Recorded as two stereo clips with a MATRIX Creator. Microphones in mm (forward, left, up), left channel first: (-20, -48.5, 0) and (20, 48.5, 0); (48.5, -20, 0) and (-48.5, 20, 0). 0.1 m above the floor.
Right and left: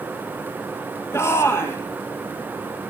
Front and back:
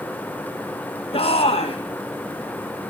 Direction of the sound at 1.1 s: 45° right.